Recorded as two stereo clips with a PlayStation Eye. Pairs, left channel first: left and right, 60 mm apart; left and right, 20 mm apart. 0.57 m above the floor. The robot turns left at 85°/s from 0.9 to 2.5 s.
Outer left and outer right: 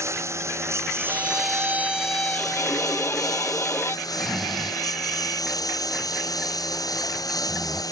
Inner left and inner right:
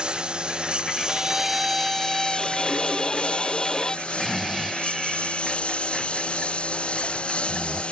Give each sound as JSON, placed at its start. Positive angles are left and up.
{"t": 0.0, "sound": "a lawn mower", "azimuth_deg": -130}
{"t": 1.1, "sound": "a violin", "azimuth_deg": -100}
{"t": 4.1, "sound": "snoring", "side_deg": 0}